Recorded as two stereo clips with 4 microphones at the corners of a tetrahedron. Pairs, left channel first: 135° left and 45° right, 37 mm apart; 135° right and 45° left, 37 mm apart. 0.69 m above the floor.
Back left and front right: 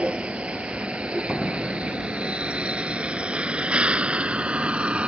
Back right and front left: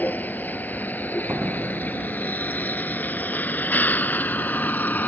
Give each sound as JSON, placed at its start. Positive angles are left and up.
{"t": 0.0, "sound": "a vehicle", "azimuth_deg": -100}
{"t": 1.3, "sound": "a door slam", "azimuth_deg": 55}